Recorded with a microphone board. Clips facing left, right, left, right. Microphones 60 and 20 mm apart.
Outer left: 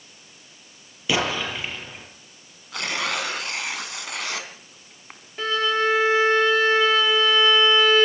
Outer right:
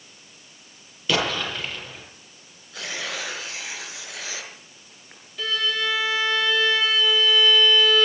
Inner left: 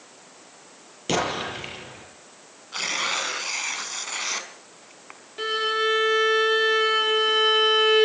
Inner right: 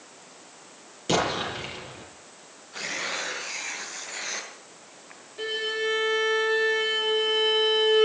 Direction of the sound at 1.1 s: 15° left (ahead or behind).